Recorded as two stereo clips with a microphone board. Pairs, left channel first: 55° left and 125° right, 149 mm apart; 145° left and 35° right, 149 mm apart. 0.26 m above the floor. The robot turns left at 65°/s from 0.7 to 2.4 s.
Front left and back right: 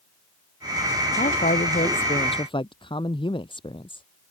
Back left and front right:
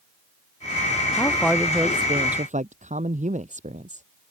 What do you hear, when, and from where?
1.2 s a man speaking: 80° left; by 4.0 s straight ahead